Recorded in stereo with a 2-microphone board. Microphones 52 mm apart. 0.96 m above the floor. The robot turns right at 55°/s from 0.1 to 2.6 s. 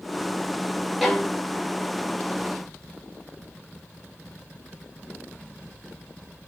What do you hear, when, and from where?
1.0 s a violin: centre (ahead or behind), 0.6 m; by 1.3 s 10° left (ahead or behind), 0.6 m